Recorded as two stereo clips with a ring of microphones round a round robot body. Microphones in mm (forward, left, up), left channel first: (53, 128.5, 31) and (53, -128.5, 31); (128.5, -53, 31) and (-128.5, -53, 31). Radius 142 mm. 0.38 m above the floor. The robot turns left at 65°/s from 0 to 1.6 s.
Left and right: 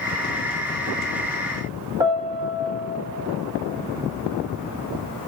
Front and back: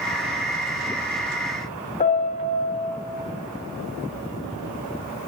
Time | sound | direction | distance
2.0 | a piano | 25° right | 1.4 m